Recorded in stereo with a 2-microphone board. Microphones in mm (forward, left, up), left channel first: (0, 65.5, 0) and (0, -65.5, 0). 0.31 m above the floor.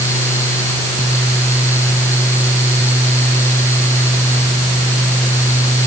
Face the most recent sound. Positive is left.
No sound to turn to.